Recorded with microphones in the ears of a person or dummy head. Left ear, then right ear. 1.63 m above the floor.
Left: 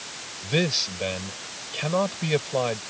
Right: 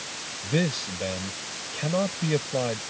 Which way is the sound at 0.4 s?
35° left (ahead or behind).